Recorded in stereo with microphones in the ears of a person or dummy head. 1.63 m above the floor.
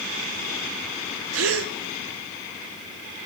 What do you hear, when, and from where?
1.3 s a gasp: 85° right, 0.7 m